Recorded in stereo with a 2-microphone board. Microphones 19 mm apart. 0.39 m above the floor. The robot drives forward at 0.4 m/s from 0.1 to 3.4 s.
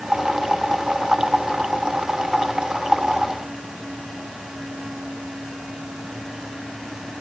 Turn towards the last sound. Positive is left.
No sound to turn to.